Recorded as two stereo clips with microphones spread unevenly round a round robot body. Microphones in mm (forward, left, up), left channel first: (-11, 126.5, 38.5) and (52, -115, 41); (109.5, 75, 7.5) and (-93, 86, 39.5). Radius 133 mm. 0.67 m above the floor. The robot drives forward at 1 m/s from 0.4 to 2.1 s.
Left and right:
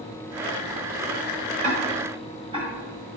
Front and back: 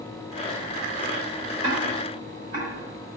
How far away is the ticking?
About 1.2 m.